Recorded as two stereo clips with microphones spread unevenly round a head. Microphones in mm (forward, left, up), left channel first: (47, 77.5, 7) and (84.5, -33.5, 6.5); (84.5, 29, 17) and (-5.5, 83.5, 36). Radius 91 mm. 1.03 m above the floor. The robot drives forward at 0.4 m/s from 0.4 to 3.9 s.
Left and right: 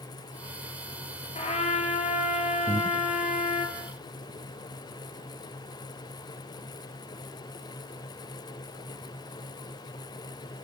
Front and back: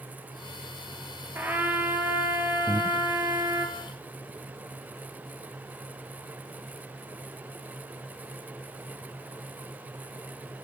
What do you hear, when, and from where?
1.4 s a trumpet: 75° left, 5 m; by 3.7 s 90° left, 4.5 m
2.7 s breathing: 120° right, 0.7 m; by 3.1 s 135° right, 0.7 m